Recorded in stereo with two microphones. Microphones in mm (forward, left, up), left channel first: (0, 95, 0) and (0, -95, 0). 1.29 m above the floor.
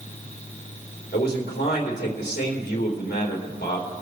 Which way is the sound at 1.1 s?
60° left (ahead or behind).